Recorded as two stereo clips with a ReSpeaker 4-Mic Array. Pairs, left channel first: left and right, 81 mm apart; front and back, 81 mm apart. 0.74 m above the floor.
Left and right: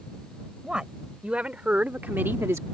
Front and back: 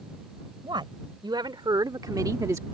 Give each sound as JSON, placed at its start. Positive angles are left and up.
{"t": 0.6, "sound": "a woman speaking", "azimuth_deg": -170}